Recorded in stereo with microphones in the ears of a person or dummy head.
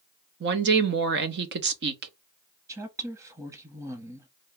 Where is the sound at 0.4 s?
55° right (ahead or behind), 0.6 m.